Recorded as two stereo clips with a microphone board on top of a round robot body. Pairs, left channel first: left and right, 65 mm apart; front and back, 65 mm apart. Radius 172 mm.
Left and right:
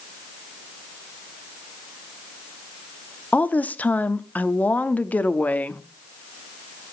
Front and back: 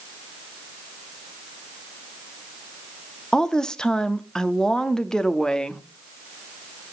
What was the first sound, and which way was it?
A woman speaking, 65° left.